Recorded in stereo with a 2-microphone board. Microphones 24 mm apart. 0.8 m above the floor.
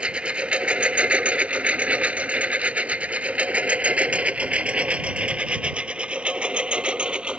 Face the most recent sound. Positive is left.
turn(degrees=-55)  # may be behind; listen again after turning